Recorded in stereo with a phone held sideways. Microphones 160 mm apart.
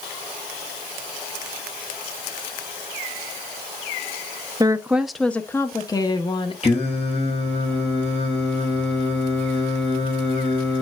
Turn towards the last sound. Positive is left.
turn(degrees=40)  # may be behind; listen again after turning